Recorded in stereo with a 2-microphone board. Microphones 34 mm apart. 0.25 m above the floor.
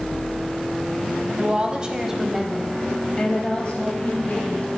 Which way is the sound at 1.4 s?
40° right (ahead or behind).